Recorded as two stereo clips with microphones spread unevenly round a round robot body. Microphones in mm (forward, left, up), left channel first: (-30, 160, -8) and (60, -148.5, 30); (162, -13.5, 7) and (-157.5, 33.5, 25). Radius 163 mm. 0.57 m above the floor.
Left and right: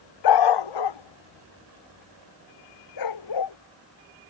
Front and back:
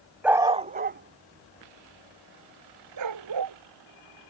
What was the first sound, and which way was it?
A dog barking, 85° left.